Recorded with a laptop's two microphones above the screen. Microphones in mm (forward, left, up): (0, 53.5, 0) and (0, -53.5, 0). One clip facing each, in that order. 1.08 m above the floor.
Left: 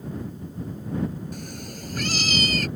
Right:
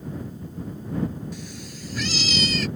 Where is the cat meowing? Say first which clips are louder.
Left 1 dB; 50° left (ahead or behind).